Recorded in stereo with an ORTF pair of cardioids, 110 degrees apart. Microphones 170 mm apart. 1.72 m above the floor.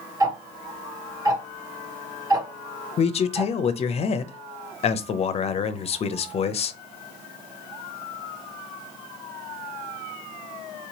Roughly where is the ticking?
Ahead.